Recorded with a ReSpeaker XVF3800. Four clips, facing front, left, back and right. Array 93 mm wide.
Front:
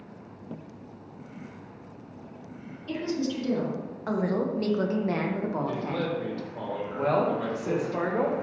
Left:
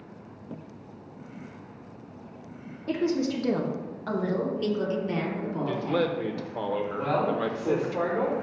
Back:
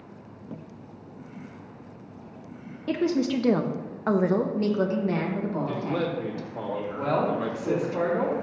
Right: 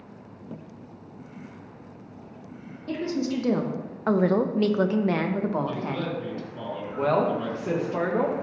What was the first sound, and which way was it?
A woman speaking, 170° left.